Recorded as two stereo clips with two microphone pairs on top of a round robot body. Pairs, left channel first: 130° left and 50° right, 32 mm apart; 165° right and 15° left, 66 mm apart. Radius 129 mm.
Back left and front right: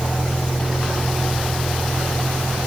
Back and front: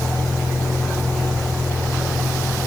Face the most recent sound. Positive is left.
turn(degrees=55)